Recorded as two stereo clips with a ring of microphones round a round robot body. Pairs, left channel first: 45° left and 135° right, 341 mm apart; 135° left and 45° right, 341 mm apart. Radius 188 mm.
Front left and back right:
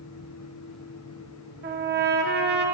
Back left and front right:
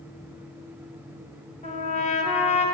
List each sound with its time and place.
1.6 s a trumpet: 170° right, 1.2 m